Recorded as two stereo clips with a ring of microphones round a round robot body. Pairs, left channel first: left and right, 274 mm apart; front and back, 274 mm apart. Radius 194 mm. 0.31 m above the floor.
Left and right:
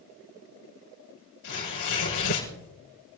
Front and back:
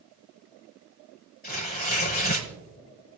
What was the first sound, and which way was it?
Tearing paper, 55° left.